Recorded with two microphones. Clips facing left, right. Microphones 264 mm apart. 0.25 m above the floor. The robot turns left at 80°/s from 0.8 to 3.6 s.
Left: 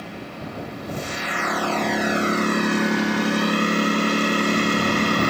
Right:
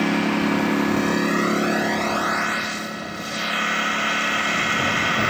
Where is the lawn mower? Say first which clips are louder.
Right 14 dB; 90° right; by 5.3 s 45° left.